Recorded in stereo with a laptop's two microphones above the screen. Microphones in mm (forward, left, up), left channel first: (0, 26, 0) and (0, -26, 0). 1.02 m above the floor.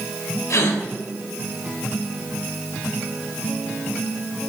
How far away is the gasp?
About 1.9 m.